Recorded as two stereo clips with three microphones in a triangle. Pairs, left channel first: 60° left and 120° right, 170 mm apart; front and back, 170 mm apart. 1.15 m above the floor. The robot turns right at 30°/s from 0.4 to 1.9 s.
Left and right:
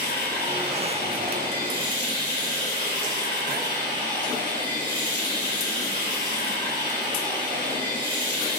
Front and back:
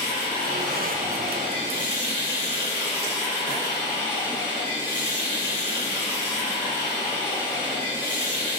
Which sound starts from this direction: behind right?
Running water, at 0.0 s.